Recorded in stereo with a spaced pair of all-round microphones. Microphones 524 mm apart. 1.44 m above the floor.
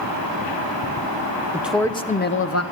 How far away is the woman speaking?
About 0.8 m.